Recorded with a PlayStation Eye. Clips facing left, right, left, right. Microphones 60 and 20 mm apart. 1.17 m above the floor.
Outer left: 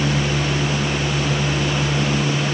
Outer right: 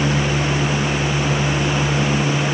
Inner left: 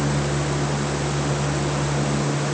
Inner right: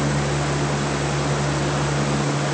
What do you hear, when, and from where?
Only background noise.